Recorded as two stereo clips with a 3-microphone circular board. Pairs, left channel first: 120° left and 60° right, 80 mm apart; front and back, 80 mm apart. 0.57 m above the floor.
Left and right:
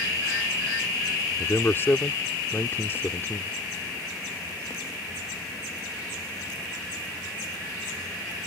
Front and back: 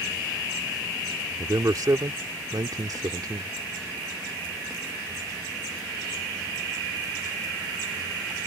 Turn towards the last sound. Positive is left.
turn(degrees=170)